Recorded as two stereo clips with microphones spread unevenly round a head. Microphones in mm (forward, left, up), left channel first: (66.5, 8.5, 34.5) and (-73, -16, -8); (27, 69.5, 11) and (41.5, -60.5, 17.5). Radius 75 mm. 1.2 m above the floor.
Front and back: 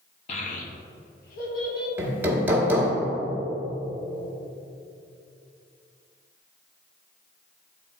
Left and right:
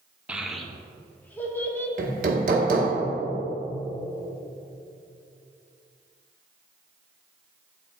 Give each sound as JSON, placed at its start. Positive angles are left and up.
{"t": 0.3, "sound": "a child speaking", "azimuth_deg": -5, "distance_m": 0.7}
{"t": 2.0, "sound": "hammering", "azimuth_deg": -85, "distance_m": 1.1}